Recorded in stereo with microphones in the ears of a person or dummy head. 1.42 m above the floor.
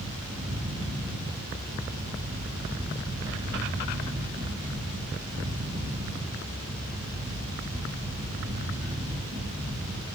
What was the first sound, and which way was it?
A fan, 35° right (ahead or behind).